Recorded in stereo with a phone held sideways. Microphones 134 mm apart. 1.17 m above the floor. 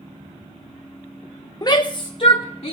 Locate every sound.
1.6 s a shout: 30° left (ahead or behind), 0.5 m; by 2.7 s 50° left (ahead or behind), 1.1 m